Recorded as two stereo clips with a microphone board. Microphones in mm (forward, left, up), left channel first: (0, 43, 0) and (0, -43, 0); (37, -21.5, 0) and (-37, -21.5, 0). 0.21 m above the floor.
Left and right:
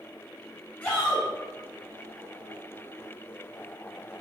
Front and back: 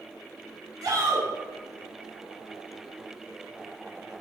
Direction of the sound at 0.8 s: 160° left.